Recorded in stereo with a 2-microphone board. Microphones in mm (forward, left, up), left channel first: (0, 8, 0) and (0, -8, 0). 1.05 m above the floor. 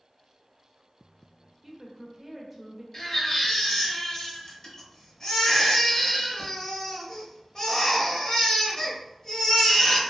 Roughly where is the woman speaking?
Right.